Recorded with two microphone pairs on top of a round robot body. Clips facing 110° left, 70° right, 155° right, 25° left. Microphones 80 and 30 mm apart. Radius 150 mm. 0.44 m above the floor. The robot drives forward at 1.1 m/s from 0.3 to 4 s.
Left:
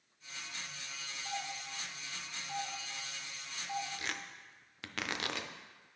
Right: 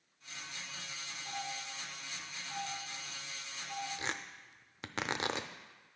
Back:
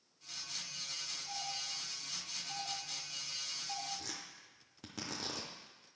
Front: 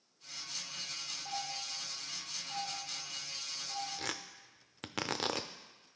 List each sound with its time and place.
1.2 s a doorbell: 40° left, 2.0 m; by 3.9 s 155° left, 2.5 m
4.0 s tearing paper: 5° right, 0.5 m